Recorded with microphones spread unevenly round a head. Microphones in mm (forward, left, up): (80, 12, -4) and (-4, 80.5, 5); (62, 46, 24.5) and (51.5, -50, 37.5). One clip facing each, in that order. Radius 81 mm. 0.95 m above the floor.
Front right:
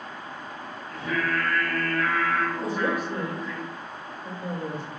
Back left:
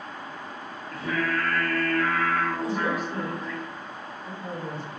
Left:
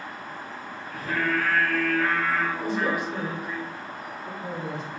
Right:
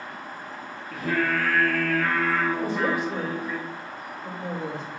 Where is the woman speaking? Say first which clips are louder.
Front right 1 dB, right 1 dB; 95° right, 3.5 m.